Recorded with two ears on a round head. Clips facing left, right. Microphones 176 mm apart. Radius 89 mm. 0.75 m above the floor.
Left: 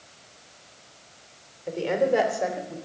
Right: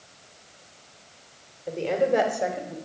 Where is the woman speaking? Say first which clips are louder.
Even; 10° left (ahead or behind), 2.5 m; by 2.8 s 5° right (ahead or behind), 2 m.